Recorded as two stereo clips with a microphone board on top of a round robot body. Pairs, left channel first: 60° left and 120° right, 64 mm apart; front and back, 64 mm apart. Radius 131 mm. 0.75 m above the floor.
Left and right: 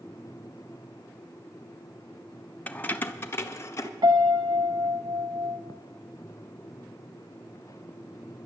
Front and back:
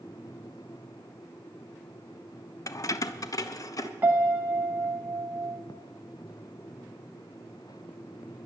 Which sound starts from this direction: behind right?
A piano, at 4.0 s.